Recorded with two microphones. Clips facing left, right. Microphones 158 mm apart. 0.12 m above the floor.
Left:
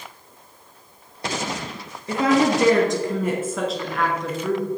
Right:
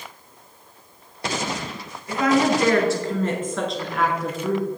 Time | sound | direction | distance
2.1 | a woman speaking | 30° left (ahead or behind) | 1.9 m